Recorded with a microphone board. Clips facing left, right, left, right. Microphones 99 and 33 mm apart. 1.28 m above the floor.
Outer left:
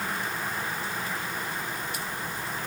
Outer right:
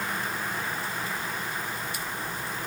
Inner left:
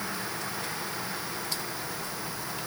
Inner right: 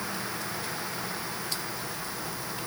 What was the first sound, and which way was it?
Only background noise.